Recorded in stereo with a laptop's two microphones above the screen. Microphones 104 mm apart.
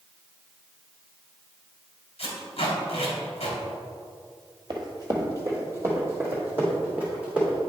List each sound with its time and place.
2.2 s tape being pulled: 65° left (ahead or behind), 2.0 m
4.7 s running footsteps: 40° right (ahead or behind), 1.3 m; by 7.6 s 10° right (ahead or behind), 3.5 m